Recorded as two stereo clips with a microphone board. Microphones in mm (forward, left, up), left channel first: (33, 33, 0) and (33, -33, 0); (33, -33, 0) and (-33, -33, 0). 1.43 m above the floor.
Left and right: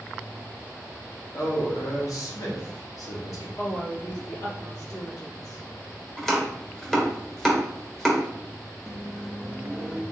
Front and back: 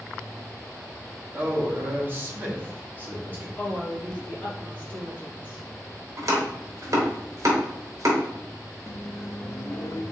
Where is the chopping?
175° left, 1.0 m.